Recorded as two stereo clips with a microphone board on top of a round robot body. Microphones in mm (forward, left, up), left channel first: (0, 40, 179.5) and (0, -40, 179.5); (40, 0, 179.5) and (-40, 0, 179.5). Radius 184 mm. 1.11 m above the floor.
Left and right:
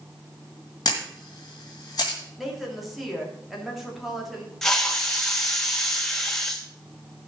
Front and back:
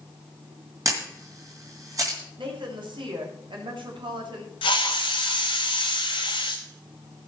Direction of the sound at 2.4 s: 175° right.